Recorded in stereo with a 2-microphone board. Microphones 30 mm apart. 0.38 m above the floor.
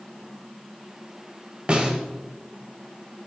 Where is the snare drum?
35° right (ahead or behind), 2 m.